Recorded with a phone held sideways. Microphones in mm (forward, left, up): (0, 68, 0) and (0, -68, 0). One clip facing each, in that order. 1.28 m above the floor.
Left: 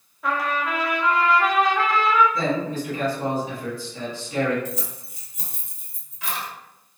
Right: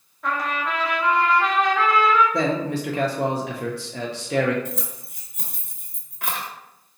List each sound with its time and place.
0.2 s a trumpet: 5° left (ahead or behind), 0.7 m
2.3 s a man speaking: 85° right, 0.8 m
4.7 s keys jangling: 60° right (ahead or behind), 0.8 m